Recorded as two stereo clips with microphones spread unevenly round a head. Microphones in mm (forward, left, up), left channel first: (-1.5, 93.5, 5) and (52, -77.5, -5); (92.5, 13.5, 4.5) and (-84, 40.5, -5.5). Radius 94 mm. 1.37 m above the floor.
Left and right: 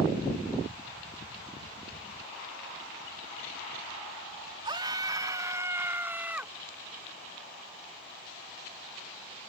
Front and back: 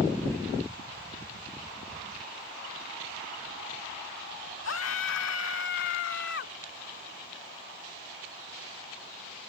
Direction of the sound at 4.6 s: 10° right.